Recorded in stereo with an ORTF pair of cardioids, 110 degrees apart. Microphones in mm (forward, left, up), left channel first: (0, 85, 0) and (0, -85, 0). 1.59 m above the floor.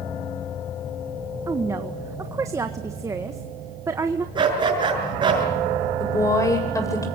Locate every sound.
1.5 s a woman speaking: 20° right, 1.6 m
4.3 s a dog barking: 30° right, 6 m
6.0 s a woman speaking: 20° left, 8.5 m